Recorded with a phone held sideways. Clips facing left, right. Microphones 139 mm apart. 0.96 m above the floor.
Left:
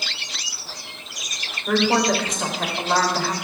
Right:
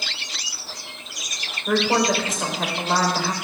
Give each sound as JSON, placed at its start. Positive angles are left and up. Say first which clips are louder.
{"t": 1.7, "sound": "a woman speaking", "louder": "left 1 dB", "side_deg": -5, "distance_m": 4.0}